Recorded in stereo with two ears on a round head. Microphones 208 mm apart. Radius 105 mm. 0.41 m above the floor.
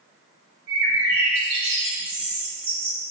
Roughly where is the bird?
Right.